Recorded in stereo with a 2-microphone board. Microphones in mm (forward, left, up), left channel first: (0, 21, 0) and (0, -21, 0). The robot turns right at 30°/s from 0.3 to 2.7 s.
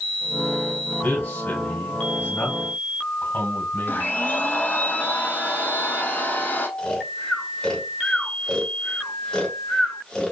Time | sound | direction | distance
1.0 | a man speaking | 55° left (ahead or behind) | 2.5 m
3.9 | a blender | 55° left (ahead or behind) | 1.8 m
6.8 | snoring | 20° left (ahead or behind) | 1.4 m